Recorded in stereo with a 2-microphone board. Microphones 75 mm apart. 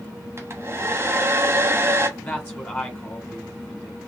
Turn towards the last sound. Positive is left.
turn(degrees=20)  # may be behind; listen again after turning